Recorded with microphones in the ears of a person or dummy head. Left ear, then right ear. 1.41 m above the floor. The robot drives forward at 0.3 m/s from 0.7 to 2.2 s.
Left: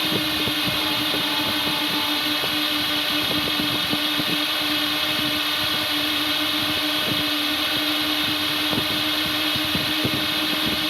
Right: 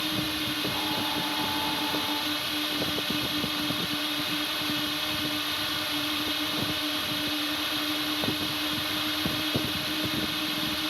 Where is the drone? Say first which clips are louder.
Left 7 dB; 10° left (ahead or behind).